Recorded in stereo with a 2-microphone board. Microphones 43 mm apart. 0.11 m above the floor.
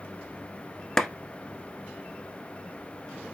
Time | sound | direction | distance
1.0 | a clap | 10° left (ahead or behind) | 1.0 m